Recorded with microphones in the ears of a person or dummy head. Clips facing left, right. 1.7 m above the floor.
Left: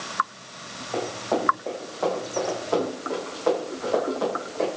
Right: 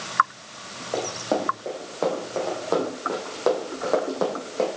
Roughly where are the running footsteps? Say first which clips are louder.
Right 1 dB; right.